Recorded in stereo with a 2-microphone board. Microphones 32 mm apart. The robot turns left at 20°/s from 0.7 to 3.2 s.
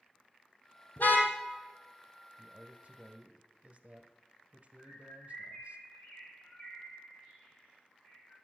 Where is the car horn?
70° left (ahead or behind), 2.5 m; by 1.3 s 75° left (ahead or behind), 2.5 m.